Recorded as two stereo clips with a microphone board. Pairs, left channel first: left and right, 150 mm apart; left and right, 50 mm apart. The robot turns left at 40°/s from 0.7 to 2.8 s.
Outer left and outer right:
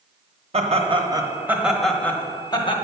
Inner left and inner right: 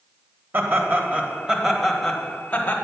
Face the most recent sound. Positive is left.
turn(degrees=140)